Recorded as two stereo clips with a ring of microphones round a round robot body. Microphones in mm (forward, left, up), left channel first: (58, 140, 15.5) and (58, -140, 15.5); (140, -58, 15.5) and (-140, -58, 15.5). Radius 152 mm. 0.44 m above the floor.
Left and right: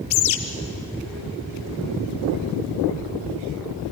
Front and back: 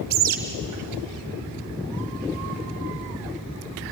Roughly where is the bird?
Behind left.